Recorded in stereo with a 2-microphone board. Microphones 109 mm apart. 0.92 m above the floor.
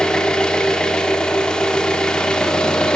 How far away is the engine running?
About 1.0 m.